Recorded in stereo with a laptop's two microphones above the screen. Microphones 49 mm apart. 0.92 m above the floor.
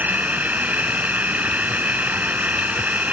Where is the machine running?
35° right (ahead or behind).